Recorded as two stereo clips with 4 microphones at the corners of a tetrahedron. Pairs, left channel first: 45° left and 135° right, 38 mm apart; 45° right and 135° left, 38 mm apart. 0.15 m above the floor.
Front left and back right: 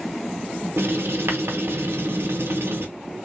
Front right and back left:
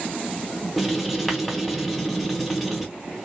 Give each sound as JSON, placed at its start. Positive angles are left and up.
{"t": 0.8, "sound": "writing", "azimuth_deg": -135, "distance_m": 0.7}